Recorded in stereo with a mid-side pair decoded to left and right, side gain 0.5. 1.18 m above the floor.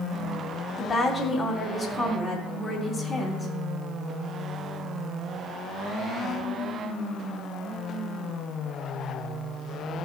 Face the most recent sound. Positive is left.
turn(degrees=30)